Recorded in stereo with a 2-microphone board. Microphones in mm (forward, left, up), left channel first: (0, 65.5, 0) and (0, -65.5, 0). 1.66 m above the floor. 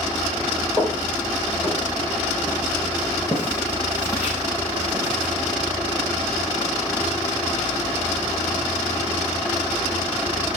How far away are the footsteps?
About 6.5 m.